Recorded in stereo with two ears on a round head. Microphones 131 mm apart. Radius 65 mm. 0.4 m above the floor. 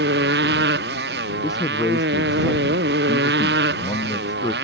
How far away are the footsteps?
I don't hear footsteps.